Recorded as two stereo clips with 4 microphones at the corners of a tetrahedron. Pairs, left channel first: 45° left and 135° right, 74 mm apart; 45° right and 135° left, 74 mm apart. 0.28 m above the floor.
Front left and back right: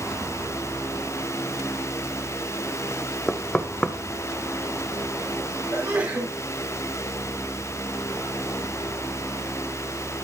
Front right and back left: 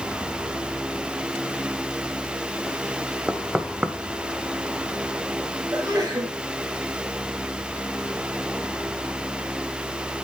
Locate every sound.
3.3 s knocking: 85° left, 1.1 m
5.7 s a sneeze: straight behind, 5 m